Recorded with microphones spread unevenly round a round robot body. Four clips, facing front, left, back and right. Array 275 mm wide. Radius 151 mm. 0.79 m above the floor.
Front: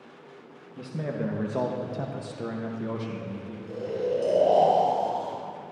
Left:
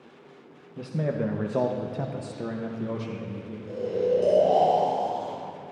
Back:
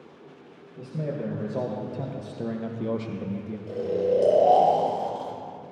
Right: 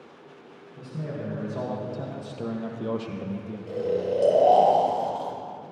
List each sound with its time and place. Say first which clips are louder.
0.8 s a man speaking: left 6 dB, even; 50° left, 1.2 m; by 3.6 s 135° right, 1.1 m
3.7 s snoring: left 1 dB, back 4 dB; 115° right, 3 m